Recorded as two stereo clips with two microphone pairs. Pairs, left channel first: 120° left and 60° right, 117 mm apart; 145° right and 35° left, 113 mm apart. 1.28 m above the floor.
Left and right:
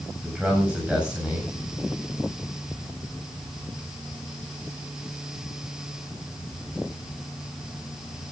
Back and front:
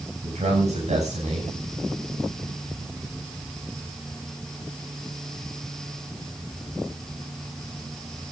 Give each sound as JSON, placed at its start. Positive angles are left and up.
{"t": 0.2, "sound": "a man speaking", "azimuth_deg": 20, "distance_m": 7.5}